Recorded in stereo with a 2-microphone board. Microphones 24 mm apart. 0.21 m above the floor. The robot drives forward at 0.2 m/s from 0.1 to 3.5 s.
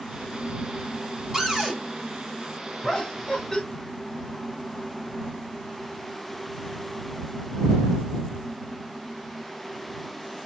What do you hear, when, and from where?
1.3 s a cupboard door: 20° right (ahead or behind), 1.3 m
2.8 s laughter: 30° left (ahead or behind), 1.3 m